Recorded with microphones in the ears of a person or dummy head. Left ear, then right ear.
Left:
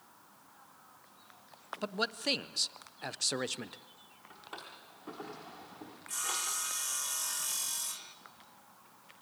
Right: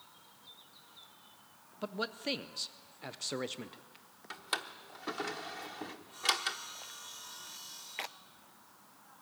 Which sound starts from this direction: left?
Sawing, at 6.1 s.